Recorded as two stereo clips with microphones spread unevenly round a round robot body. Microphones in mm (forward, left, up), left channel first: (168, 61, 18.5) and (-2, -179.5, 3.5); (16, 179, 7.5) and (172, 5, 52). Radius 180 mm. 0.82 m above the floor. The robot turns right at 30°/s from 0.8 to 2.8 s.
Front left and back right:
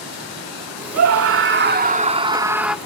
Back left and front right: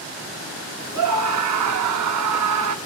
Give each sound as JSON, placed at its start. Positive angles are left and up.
{"t": 0.9, "sound": "a scream", "azimuth_deg": -90, "distance_m": 1.5}